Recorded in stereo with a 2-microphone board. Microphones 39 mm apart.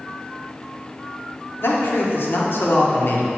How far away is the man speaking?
About 1.2 m.